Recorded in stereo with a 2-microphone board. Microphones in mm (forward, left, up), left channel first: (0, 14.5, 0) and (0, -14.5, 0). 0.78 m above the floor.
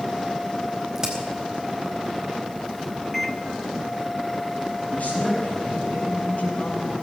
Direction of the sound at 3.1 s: 5° left (ahead or behind).